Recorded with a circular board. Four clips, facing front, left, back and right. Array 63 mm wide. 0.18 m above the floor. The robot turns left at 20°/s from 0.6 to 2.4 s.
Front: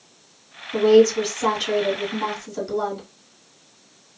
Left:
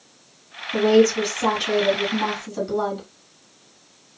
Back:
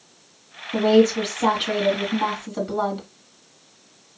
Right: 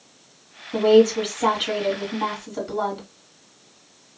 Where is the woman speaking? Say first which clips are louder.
Right 1 dB, front 2 dB; 130° right, 1.3 m; by 3.1 s 160° right, 1.3 m.